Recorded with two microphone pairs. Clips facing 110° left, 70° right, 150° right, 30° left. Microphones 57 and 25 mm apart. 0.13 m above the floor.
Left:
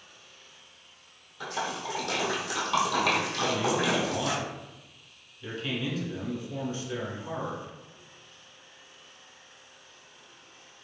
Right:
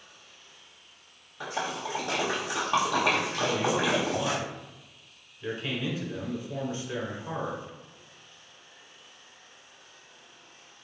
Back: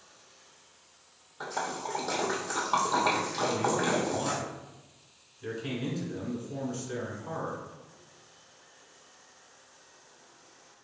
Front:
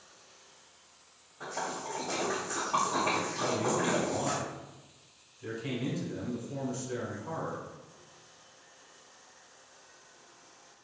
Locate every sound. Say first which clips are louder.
1.4 s a splash: even, back 3 dB; 145° right, 1.3 m
3.4 s a man speaking: right 1 dB, back 2 dB; 100° right, 1.2 m